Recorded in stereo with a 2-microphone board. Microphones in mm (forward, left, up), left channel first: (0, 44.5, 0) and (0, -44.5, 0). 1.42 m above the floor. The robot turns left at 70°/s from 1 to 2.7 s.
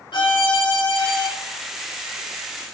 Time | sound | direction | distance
0.1 | a violin | 60° left (ahead or behind) | 1.6 m